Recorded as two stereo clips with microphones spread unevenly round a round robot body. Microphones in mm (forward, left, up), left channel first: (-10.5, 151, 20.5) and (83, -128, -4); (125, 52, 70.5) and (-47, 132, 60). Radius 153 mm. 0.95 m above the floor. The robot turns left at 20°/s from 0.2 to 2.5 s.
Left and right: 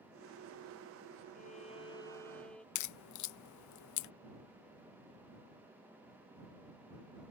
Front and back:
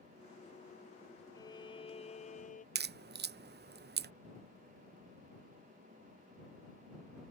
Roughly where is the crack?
Behind left.